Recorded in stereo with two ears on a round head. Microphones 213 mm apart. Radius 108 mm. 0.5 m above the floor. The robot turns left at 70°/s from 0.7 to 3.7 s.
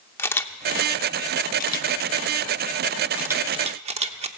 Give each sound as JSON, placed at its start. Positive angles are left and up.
{"t": 0.2, "sound": "a camera shutter", "side_deg": 10, "distance_m": 0.7}